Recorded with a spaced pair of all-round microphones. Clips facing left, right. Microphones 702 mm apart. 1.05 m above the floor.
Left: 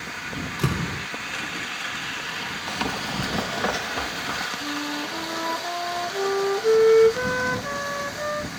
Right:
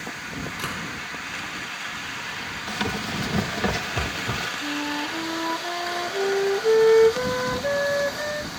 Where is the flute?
40° left (ahead or behind).